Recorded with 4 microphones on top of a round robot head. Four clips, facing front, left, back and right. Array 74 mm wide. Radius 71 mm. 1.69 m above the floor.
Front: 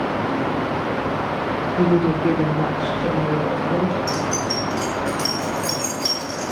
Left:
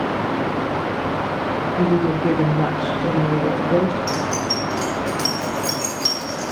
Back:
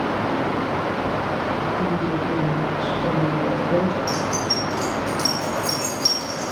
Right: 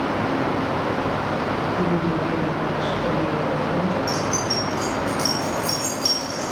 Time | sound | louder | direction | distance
1.8 | a woman speaking | left 7 dB, front 5 dB | 10° left | 0.8 m
4.1 | keys jangling | left 1 dB, front 1 dB | 60° left | 1.2 m